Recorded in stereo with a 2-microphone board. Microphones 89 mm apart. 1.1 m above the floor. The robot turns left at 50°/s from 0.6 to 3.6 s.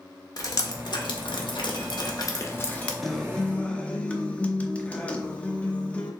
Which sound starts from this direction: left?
Dripping, at 0.4 s.